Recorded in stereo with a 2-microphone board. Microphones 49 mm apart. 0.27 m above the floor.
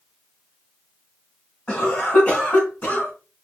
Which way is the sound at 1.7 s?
30° left (ahead or behind).